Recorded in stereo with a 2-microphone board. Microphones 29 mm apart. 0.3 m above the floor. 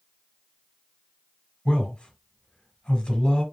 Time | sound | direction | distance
1.6 | a man speaking | 25° left (ahead or behind) | 1.3 m